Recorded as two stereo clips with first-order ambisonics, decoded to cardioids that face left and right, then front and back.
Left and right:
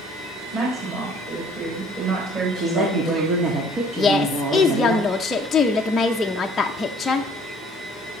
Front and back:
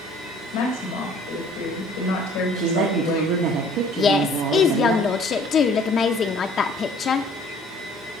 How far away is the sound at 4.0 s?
About 0.6 m.